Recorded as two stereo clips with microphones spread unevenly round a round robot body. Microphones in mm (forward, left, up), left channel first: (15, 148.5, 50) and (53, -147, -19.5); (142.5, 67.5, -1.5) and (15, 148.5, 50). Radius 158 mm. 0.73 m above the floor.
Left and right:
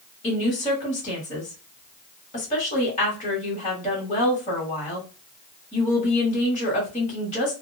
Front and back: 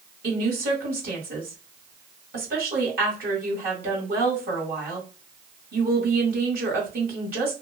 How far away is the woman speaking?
About 1.4 m.